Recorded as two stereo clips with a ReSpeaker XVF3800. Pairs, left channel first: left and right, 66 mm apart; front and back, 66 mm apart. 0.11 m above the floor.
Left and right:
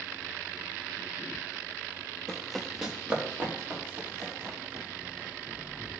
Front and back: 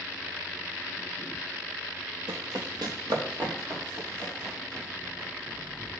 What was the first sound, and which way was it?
Running footsteps, 170° left.